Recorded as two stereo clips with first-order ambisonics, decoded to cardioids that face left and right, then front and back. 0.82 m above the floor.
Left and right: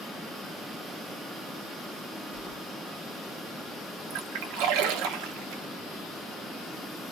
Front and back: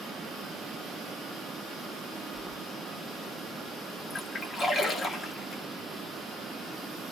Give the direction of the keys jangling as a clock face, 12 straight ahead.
9 o'clock.